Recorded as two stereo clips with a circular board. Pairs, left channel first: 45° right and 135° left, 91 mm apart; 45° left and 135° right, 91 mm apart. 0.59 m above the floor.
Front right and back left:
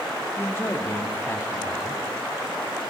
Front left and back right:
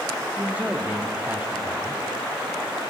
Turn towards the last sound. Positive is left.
turn(degrees=-80)